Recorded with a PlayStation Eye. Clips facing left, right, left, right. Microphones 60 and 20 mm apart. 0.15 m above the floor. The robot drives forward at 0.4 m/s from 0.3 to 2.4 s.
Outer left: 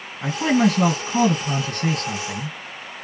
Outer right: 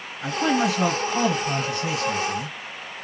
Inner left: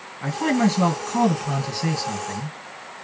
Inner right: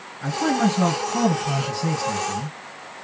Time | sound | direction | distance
0.2 | a man speaking | 60° left (ahead or behind) | 2.5 m